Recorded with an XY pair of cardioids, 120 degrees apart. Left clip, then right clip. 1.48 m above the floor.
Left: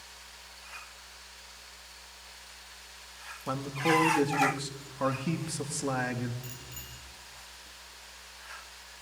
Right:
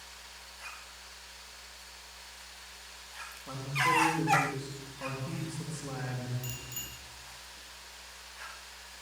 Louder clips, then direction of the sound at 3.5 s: Left 1 dB; 60° left.